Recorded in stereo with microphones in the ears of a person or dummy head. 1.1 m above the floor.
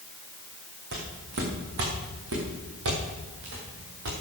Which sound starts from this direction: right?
Footsteps, at 0.9 s.